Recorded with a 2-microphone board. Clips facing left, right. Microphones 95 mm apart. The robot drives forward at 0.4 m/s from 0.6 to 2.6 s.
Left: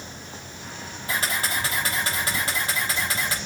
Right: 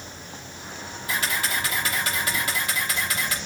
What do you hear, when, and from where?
1.1 s a camera shutter: 40° left (ahead or behind), 6 m; by 3.4 s 35° left (ahead or behind), 6.5 m